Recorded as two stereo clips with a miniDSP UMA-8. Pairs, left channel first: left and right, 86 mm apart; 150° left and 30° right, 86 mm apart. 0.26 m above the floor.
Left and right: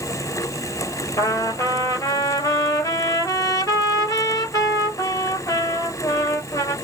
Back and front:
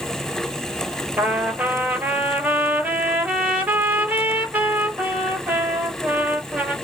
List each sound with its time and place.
1.2 s a trumpet: 40° left, 1.1 m